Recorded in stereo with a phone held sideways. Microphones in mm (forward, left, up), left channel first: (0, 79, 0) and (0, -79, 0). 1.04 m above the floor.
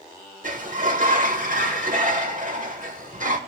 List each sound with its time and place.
0.4 s a sliding door: 55° right (ahead or behind), 1.1 m